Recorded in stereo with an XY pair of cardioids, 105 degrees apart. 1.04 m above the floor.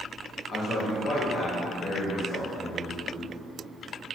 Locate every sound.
0.5 s a man speaking: 60° left, 1.3 m